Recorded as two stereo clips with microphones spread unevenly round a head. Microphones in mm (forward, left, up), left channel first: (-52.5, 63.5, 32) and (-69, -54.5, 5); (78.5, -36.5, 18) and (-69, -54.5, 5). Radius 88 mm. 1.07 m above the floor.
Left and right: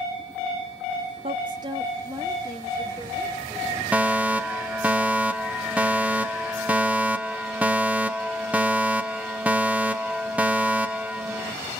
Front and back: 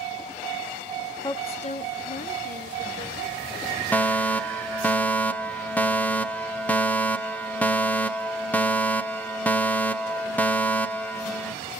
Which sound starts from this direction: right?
A fire alarm, at 3.9 s.